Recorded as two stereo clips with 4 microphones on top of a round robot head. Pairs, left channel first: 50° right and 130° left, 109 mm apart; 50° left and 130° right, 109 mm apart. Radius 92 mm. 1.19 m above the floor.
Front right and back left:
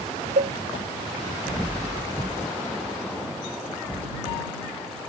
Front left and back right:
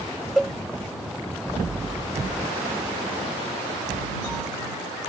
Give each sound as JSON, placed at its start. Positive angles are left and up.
{"t": 0.4, "sound": "a cowbell", "azimuth_deg": 140}